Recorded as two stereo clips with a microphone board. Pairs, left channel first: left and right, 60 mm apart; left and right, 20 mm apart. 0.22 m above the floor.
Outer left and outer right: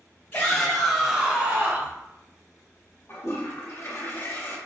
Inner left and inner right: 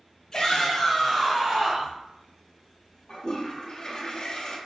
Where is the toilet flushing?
45° left (ahead or behind), 1.7 m.